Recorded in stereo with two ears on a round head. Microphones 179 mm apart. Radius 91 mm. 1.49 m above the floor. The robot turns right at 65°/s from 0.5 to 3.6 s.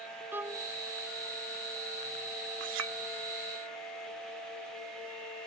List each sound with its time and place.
0.3 s a violin: 10° right (ahead or behind); by 0.7 s 5° left (ahead or behind)
2.6 s a clink: 65° right (ahead or behind); by 3.0 s 75° right (ahead or behind)